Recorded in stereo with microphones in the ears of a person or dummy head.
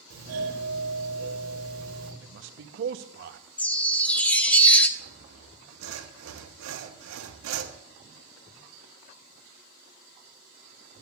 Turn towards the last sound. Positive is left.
turn(degrees=-70)  # may be behind; listen again after turning